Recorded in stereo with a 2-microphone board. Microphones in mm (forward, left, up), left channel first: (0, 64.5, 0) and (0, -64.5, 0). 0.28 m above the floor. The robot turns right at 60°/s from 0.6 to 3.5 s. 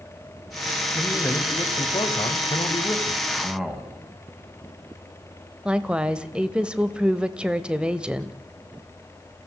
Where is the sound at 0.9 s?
10° left, 1.9 m; by 3.2 s 145° left, 1.9 m.